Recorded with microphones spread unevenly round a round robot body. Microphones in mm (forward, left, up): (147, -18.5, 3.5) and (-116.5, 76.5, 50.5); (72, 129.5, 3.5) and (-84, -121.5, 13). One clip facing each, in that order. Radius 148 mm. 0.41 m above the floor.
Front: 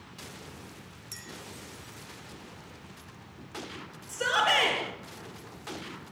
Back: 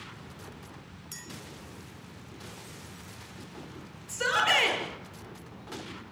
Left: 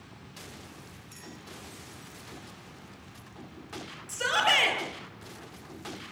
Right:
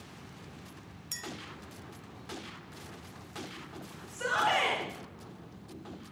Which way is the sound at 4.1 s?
85° left.